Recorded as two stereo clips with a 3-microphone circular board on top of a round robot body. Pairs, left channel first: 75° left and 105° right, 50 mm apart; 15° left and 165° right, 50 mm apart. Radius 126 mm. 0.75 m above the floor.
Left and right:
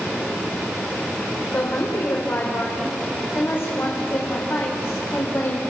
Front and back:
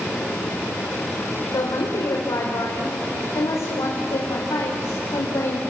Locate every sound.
1.5 s a woman speaking: 25° left, 2.5 m